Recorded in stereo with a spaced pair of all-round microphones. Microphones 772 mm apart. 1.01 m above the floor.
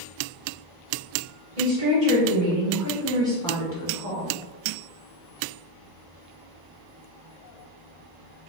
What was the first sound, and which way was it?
A woman speaking, 50° right (ahead or behind).